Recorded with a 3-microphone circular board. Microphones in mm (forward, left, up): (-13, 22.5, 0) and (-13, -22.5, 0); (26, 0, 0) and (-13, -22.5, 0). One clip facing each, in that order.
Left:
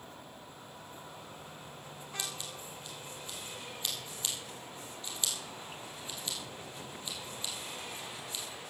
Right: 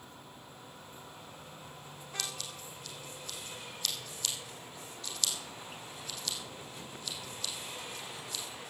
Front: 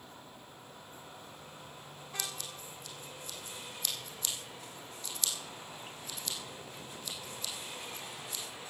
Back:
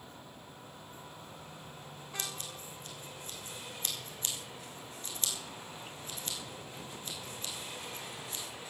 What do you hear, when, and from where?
2.2 s scissors: 160° left, 3.5 m